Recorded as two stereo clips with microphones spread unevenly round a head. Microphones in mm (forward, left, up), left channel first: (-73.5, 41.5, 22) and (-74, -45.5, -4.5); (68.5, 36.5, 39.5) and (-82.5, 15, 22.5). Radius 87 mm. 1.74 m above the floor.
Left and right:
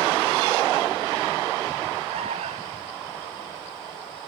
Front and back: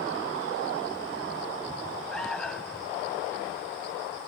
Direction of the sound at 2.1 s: 80° right.